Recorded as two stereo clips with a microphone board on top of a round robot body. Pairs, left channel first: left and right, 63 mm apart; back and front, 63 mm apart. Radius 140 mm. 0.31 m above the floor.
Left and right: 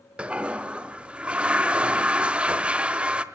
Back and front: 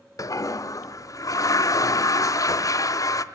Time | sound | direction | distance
0.2 | a toilet flushing | 160° right | 1.3 m